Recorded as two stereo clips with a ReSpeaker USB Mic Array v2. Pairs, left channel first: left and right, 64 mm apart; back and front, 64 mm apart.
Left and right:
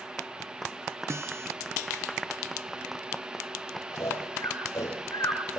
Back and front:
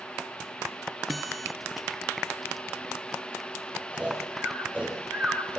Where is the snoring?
60° left, 8 m.